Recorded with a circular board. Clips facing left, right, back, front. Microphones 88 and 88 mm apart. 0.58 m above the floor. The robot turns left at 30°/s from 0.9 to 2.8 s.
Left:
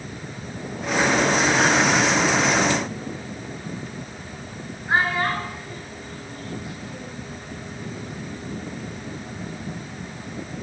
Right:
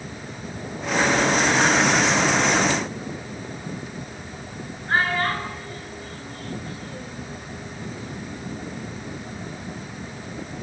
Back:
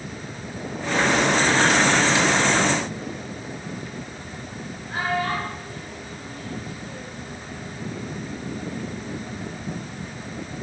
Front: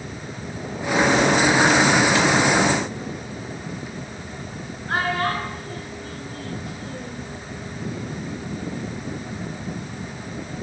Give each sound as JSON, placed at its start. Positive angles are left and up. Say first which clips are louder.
{"t": 4.9, "sound": "a child speaking", "louder": "left 1 dB, front 2 dB", "azimuth_deg": 15, "distance_m": 7.5}